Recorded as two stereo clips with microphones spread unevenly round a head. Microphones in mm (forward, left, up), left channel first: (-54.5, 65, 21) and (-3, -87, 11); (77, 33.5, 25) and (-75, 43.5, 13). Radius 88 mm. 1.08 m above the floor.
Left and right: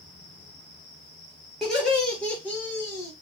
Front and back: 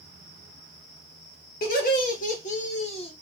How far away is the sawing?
No sawing in this recording.